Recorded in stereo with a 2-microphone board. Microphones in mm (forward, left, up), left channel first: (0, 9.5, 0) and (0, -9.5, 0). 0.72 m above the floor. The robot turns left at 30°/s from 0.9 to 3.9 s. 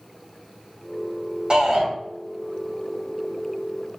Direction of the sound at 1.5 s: 55° right (ahead or behind).